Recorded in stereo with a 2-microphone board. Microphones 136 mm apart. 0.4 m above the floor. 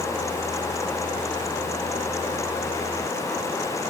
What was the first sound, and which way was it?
Only background noise.